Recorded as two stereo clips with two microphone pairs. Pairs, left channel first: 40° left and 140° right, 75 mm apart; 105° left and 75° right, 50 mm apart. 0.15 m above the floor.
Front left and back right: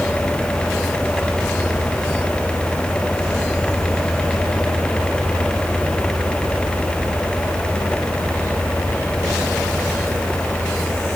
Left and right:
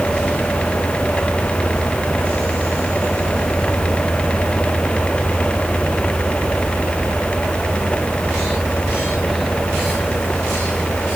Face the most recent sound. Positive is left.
No sound to turn to.